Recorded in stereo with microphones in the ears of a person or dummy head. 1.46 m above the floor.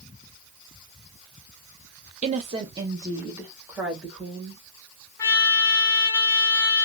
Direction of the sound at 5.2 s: 20° left (ahead or behind).